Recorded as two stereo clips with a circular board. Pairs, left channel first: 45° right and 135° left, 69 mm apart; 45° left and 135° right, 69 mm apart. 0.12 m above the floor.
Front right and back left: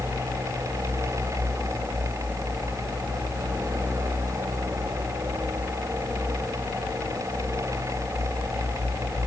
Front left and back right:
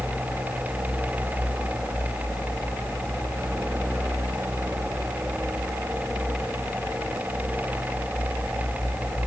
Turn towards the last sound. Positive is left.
No sound to turn to.